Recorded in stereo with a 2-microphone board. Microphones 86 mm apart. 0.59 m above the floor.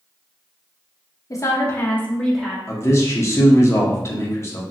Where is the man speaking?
35° left (ahead or behind), 0.9 m.